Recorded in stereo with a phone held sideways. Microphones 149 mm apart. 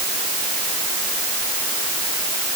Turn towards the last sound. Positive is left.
No sound to turn to.